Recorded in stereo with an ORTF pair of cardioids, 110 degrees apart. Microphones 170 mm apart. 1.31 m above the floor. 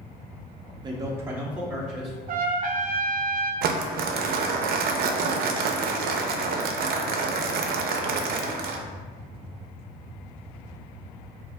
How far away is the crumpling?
About 0.5 m.